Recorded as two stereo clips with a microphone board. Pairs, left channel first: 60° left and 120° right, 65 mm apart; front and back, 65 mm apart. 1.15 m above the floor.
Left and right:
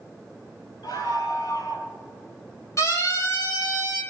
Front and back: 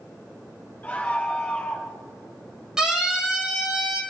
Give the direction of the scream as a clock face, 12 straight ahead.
10 o'clock.